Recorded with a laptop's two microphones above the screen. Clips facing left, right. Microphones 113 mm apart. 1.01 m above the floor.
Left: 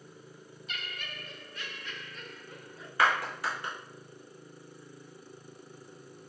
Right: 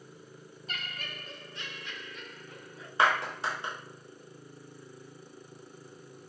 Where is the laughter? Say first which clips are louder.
Right 1 dB; 40° right (ahead or behind), 0.6 m; by 2.9 s 5° left (ahead or behind), 1.0 m.